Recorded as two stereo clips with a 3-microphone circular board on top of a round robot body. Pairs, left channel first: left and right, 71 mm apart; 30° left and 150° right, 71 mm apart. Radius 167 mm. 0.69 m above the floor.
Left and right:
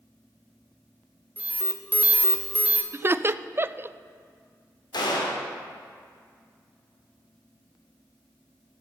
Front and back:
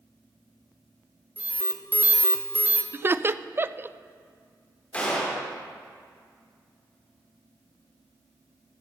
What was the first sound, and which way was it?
An alarm, 125° right.